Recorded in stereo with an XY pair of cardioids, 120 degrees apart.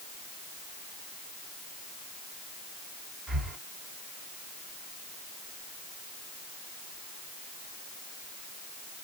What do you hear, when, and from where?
3.3 s breathing: 30° right, 2 m